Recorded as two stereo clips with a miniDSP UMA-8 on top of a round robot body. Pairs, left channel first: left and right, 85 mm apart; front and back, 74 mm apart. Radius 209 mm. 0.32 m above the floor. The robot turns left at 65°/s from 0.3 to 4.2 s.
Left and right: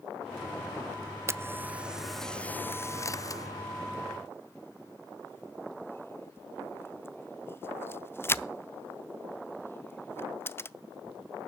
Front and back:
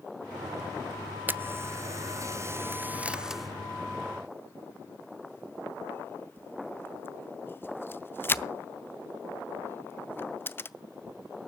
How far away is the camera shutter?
About 0.7 m.